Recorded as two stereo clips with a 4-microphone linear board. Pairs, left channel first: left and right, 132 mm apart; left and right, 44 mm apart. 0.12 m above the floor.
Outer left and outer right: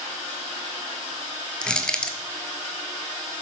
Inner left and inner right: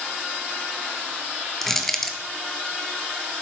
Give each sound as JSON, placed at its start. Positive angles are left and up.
{"t": 1.6, "sound": "crushing", "side_deg": 5, "distance_m": 0.8}